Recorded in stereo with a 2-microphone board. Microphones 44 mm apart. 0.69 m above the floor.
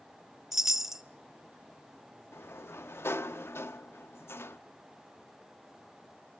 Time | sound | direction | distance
0.5 | a chime | 10° right (ahead or behind) | 0.6 m
2.3 | a sliding door | 65° left (ahead or behind) | 0.6 m